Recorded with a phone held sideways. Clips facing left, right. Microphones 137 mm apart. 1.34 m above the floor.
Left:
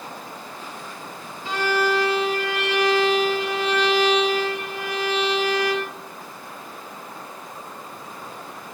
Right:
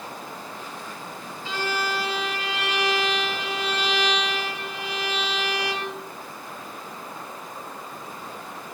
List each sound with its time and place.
1.4 s a violin: 55° left (ahead or behind), 4 m